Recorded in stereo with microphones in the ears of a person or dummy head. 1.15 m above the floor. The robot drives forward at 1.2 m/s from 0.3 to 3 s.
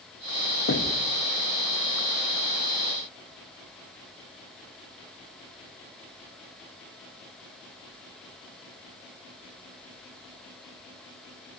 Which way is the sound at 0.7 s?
55° left (ahead or behind).